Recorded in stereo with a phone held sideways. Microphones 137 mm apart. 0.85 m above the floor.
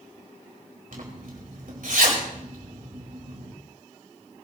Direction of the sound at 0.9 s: 75° right (ahead or behind).